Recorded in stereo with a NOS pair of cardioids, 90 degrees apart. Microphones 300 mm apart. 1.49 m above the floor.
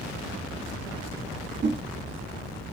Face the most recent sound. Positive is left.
turn(degrees=-40)